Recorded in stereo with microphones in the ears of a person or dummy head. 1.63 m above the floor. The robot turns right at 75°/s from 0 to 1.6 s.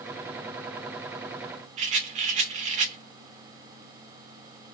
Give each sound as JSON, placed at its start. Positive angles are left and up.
{"t": 1.8, "sound": "a rattle", "side_deg": -45, "distance_m": 0.5}